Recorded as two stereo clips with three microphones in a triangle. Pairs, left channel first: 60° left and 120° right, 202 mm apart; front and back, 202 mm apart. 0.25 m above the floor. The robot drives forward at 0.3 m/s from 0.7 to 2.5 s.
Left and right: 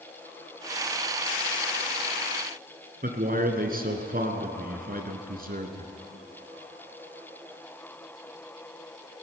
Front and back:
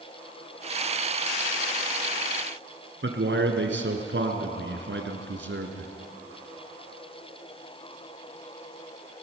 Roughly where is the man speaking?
Behind.